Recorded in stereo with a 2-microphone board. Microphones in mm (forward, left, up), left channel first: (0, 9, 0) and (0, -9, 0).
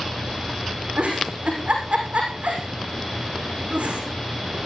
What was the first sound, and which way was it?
A giggle, 85° right.